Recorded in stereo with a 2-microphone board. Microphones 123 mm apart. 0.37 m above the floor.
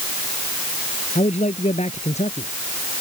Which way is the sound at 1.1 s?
75° left (ahead or behind).